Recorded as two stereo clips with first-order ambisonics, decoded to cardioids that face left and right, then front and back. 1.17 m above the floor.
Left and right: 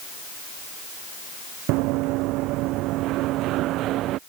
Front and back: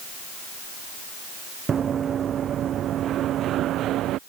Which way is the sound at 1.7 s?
115° right.